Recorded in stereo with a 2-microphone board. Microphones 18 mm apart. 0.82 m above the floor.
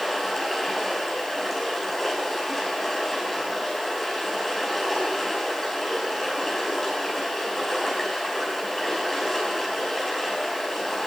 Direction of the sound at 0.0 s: 10° left (ahead or behind).